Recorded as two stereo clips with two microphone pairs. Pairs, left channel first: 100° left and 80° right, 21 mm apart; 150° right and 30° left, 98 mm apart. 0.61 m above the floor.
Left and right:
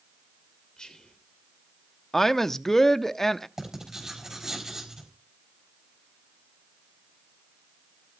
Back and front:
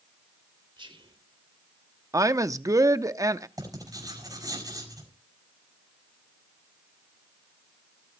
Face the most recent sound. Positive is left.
turn(degrees=-15)